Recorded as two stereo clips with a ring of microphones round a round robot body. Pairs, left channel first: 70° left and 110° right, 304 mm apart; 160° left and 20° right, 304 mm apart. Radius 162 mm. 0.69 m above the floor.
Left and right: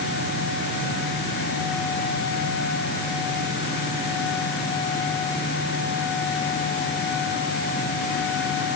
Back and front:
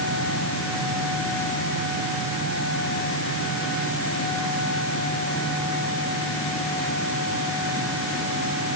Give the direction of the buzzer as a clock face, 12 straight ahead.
No buzzer in this recording.